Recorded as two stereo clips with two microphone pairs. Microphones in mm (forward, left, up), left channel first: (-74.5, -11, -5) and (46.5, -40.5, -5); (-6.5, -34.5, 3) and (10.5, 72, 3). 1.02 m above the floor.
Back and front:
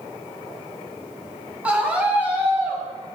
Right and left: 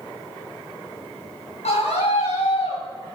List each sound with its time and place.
1.6 s a scream: 95° right, 8 m